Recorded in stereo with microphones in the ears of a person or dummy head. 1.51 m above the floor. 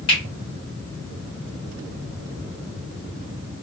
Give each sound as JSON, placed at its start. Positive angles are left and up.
{"t": 0.1, "sound": "a finger snap", "side_deg": 25, "distance_m": 1.5}